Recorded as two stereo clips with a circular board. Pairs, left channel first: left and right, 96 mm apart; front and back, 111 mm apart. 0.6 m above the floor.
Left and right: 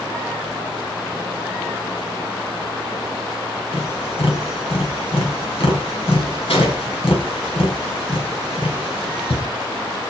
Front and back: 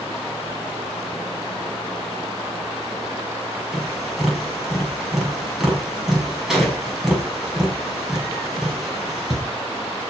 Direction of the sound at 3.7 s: 95° left.